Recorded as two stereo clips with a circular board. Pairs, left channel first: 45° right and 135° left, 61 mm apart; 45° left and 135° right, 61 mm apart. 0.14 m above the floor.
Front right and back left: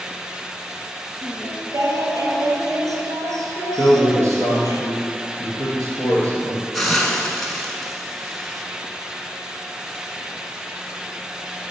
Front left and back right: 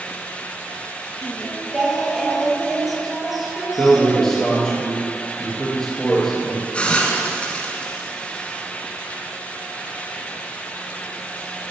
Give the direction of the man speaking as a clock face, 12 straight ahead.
8 o'clock.